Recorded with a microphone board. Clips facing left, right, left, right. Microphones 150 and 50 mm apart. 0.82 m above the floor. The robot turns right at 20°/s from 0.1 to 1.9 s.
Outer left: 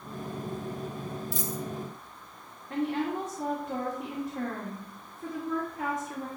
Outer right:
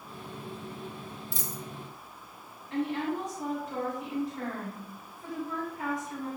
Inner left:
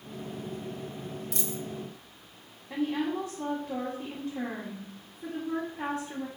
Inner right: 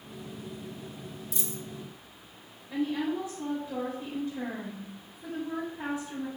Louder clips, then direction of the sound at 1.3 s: Outer left 5 dB, inner left 2 dB; 70° left (ahead or behind).